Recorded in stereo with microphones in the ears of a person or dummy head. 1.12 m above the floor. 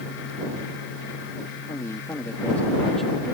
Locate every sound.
1.7 s a man speaking: 15° left (ahead or behind); by 3.4 s 10° right (ahead or behind)